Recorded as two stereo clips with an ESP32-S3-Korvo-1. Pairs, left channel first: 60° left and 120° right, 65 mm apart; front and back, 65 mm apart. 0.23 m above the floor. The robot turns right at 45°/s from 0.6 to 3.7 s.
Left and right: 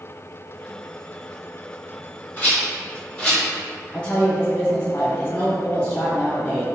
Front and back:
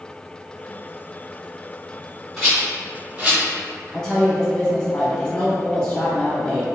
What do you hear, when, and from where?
2.4 s a rattle: 95° left, 1.6 m; by 3.4 s 140° left, 1.6 m
3.9 s a woman speaking: 50° left, 0.9 m